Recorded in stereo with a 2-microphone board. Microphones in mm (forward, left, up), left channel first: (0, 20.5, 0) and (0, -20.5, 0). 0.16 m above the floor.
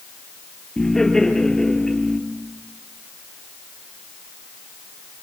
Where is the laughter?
10° left (ahead or behind), 4 m.